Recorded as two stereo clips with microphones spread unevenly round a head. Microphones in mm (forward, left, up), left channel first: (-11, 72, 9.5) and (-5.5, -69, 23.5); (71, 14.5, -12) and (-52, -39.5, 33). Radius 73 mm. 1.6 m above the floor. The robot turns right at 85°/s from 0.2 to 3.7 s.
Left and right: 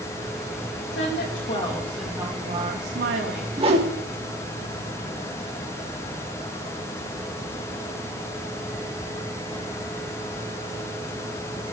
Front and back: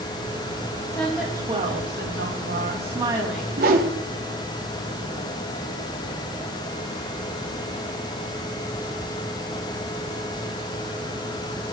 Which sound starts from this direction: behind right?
A whoosh, at 3.6 s.